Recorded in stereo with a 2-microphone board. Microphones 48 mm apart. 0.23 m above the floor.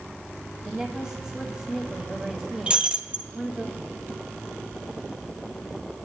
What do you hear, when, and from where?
0.7 s a woman speaking: 10° right (ahead or behind), 1.2 m
2.7 s breaking glass: 25° right (ahead or behind), 1.0 m